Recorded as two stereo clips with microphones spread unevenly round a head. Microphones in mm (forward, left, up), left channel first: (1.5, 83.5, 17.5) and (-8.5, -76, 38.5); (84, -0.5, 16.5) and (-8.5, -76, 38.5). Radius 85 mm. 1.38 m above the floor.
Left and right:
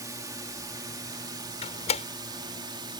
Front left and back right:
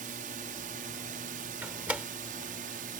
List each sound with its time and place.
0.0 s a drone: 165° right; by 3.0 s 160° right
1.6 s a door slam: 140° left